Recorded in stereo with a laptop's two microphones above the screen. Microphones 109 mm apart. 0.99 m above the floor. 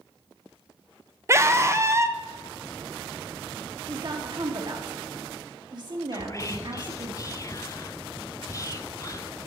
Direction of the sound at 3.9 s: 45° right (ahead or behind).